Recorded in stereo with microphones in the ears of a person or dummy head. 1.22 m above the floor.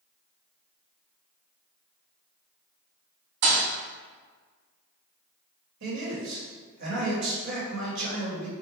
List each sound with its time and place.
3.4 s a thud: 55° right (ahead or behind), 1.5 m
5.8 s a man speaking: 65° right (ahead or behind), 1.9 m